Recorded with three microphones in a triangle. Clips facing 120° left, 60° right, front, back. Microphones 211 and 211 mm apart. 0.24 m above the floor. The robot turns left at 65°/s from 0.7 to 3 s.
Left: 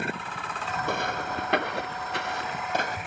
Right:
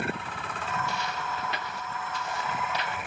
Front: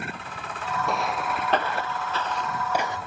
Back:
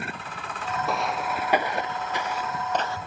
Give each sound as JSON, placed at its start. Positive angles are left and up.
{"t": 0.8, "sound": "footsteps", "azimuth_deg": 90}